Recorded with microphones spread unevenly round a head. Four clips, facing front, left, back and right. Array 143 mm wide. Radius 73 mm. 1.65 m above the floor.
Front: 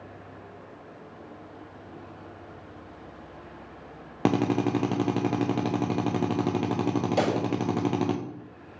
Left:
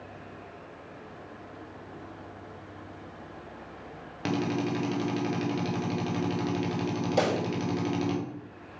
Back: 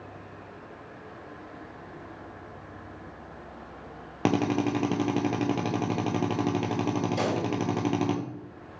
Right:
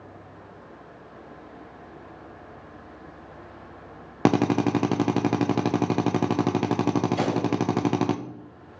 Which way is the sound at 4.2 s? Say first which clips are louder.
Right 8 dB, front 1 dB; 80° right.